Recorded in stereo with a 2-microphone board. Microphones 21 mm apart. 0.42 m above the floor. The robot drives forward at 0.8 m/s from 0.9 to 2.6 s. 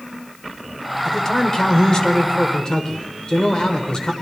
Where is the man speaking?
30° left (ahead or behind), 1.6 m; by 4.1 s 40° left (ahead or behind), 1.3 m.